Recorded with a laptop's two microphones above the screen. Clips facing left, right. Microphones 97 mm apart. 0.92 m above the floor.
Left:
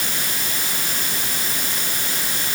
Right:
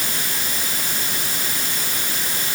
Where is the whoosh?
I don't hear a whoosh.